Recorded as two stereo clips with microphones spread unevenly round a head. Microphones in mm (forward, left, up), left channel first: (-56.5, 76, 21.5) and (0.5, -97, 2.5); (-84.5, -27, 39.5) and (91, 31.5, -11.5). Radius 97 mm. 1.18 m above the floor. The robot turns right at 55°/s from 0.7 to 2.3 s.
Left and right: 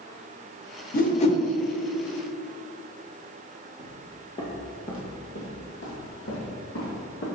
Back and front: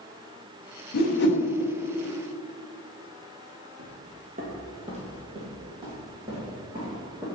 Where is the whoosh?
150° left, 0.8 m; by 1.4 s 175° left, 0.8 m.